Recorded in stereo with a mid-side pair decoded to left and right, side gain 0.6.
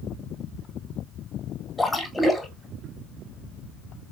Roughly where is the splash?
Ahead.